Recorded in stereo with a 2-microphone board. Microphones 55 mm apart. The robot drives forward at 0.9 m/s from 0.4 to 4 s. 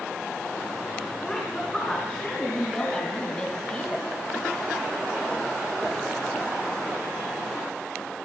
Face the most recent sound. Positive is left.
turn(degrees=20)  # may be behind; listen again after turning